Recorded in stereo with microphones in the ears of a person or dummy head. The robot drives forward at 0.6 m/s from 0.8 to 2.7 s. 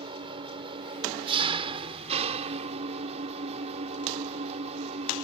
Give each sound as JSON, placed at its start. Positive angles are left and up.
{"t": 0.0, "sound": "an engine running", "side_deg": -30}